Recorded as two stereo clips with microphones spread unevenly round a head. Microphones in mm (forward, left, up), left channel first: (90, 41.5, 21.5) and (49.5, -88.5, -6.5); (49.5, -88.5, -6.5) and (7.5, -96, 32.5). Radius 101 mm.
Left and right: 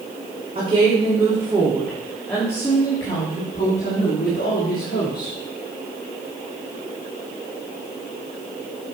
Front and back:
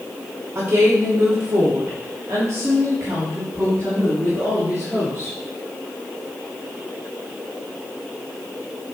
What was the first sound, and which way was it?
A woman speaking, 175° right.